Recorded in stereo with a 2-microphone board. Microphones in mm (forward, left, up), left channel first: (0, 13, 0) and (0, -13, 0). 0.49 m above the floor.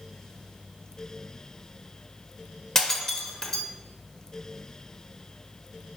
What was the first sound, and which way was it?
Breaking glass, 20° left (ahead or behind).